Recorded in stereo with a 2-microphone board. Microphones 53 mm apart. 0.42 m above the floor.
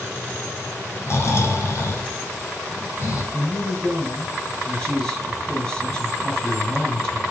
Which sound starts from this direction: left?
Snoring, at 1.1 s.